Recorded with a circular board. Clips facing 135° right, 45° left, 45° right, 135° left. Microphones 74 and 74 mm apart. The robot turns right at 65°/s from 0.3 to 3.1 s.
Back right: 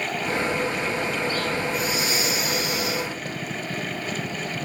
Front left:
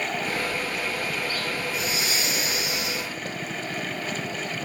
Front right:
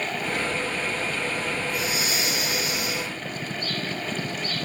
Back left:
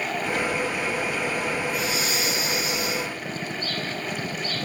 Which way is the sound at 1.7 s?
95° right.